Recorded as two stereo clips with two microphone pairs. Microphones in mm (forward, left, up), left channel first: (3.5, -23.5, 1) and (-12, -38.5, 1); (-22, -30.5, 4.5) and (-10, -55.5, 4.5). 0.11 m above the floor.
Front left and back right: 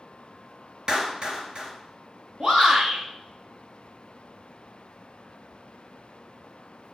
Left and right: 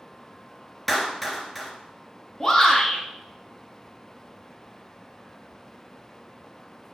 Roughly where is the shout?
Behind.